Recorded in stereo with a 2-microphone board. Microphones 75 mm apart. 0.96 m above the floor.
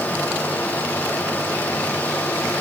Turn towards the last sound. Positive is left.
No sound to turn to.